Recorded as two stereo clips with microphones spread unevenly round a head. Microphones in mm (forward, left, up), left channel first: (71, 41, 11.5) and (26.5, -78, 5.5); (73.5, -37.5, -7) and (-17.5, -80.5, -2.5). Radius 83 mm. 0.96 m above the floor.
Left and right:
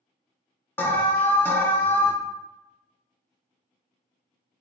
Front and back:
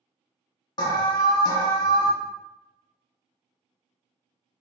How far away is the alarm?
About 0.6 m.